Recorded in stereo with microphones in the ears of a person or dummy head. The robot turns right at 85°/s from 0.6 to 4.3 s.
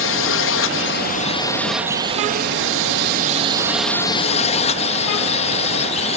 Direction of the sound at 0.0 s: 85° left.